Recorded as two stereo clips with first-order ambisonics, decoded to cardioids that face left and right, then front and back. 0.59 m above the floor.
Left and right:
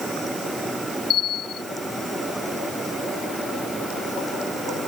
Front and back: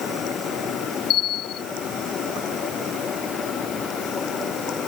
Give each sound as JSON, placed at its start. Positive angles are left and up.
{"t": 1.1, "sound": "a bell", "azimuth_deg": 45}